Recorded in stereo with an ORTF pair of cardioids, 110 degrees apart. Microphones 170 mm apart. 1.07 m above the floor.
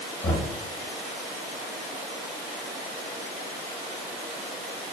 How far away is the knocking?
About 1.3 m.